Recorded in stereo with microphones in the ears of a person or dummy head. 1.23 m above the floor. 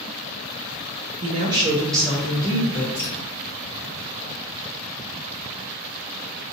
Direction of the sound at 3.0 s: 30° left (ahead or behind).